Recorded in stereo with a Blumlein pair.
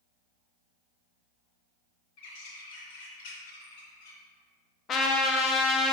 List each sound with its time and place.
2.2 s a bird: 50° left, 0.9 m
4.9 s a trumpet: 25° left, 0.5 m